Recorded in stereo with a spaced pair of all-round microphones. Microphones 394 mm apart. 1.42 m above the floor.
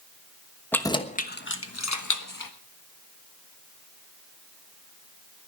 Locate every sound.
0.7 s keys jangling: 5° left (ahead or behind), 1.2 m; by 2.5 s 60° left (ahead or behind), 1.5 m